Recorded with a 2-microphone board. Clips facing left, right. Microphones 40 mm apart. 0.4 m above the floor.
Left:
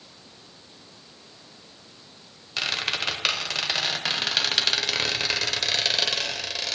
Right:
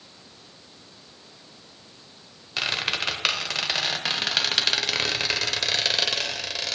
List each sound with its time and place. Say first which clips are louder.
2.6 s a squeak: right 1 dB; 10° right (ahead or behind), 0.8 m